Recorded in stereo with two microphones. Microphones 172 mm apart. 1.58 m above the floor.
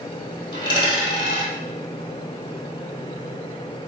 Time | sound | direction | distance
0.5 | a dropped coin | 30° left (ahead or behind) | 1.9 m